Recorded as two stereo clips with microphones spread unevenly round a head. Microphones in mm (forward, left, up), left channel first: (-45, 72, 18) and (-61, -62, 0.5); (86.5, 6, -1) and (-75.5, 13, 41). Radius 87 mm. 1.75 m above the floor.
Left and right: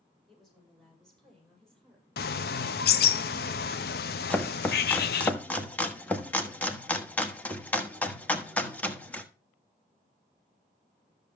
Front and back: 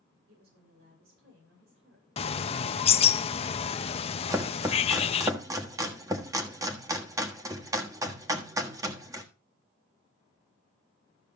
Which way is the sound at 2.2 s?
55° left.